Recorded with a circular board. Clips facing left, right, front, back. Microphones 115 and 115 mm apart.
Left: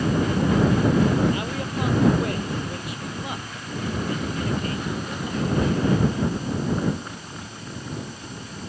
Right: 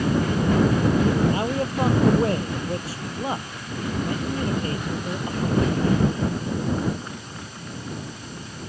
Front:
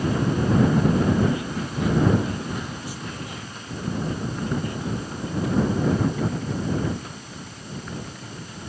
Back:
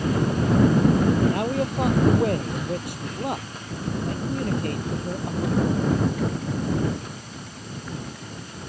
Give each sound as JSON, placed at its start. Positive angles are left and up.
{"t": 1.3, "sound": "a man speaking", "azimuth_deg": -150}